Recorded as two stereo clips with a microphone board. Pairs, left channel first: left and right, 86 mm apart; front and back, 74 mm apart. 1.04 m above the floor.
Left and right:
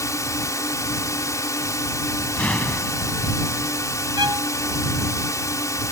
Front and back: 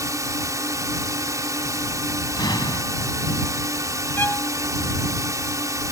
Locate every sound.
0.0 s a drone: 140° left
2.4 s an explosion: 15° left
4.2 s a violin: 60° right